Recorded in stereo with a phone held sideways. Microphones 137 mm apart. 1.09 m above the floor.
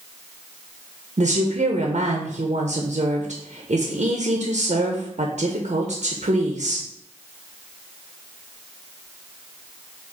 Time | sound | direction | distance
1.2 | a woman speaking | 55° right (ahead or behind) | 0.6 m